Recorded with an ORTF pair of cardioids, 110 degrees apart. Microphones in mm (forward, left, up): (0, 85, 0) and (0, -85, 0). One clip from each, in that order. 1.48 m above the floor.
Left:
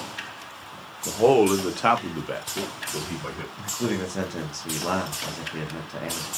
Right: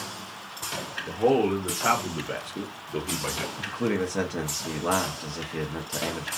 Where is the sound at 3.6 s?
5° right, 0.7 m.